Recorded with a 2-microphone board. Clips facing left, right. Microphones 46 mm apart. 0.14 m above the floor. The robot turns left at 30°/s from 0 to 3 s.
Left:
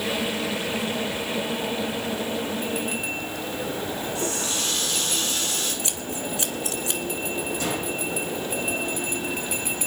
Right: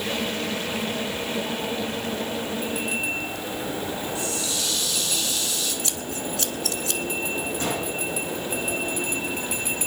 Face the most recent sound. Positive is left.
turn(degrees=-35)  # may be behind; listen again after turning